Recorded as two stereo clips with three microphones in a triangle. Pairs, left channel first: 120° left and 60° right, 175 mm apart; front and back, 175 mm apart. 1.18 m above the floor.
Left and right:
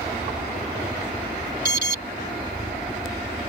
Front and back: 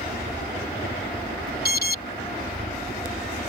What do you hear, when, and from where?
0.0 s a helicopter: straight ahead; by 3.5 s 5° right
1.6 s an alarm: 25° right